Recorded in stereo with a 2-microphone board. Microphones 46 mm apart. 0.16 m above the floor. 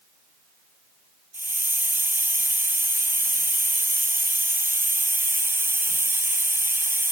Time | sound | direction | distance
1.3 | a hiss | 60° right (ahead or behind) | 0.8 m